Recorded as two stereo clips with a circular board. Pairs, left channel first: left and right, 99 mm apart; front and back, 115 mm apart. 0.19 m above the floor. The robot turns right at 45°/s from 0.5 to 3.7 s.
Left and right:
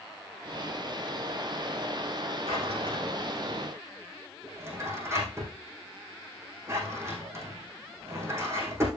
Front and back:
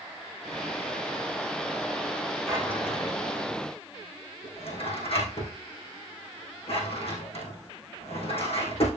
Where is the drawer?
85° right, 4.5 m; by 8.9 s 30° right, 4.5 m.